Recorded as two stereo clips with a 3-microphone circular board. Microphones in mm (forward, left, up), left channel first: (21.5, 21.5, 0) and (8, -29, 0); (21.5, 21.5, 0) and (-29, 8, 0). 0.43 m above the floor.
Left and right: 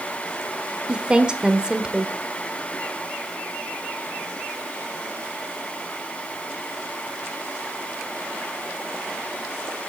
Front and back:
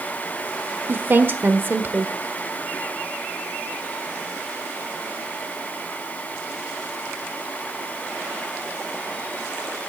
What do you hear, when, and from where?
0.9 s a woman speaking: 170° right, 1.3 m